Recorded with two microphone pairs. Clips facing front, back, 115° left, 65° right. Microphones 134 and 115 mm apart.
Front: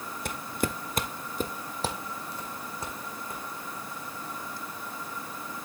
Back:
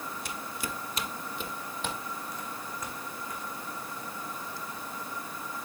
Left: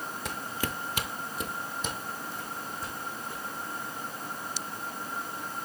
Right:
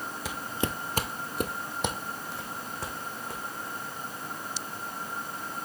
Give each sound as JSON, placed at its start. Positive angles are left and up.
{"t": 0.2, "sound": "footsteps", "azimuth_deg": 20, "distance_m": 0.6}